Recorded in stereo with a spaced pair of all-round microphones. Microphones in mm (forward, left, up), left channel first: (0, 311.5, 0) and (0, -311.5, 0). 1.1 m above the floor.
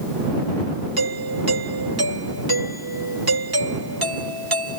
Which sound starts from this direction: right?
A doorbell, at 1.0 s.